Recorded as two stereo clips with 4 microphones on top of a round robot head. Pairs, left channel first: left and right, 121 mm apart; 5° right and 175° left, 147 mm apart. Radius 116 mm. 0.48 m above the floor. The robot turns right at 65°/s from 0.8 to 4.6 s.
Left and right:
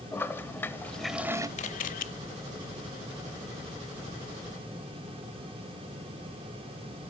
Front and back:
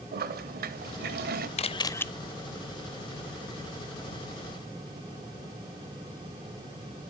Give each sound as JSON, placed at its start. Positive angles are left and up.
{"t": 0.1, "sound": "a toilet flushing", "azimuth_deg": 165, "distance_m": 0.9}
{"t": 1.6, "sound": "a camera shutter", "azimuth_deg": 45, "distance_m": 0.5}